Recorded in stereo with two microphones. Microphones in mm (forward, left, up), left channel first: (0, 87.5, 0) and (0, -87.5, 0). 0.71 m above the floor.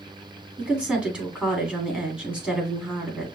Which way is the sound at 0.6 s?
5° right (ahead or behind).